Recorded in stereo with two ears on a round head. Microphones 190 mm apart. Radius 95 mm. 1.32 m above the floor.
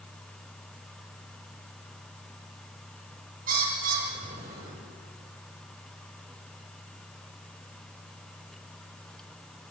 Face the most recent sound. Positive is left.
turn(degrees=-45)  # may be behind; listen again after turning